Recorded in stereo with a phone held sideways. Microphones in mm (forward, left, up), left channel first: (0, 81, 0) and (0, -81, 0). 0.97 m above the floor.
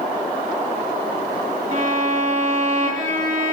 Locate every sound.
1.7 s a violin: 50° right (ahead or behind), 1.5 m